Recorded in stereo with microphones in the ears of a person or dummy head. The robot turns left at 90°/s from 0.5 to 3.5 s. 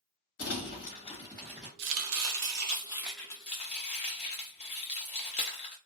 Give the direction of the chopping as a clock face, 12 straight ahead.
2 o'clock.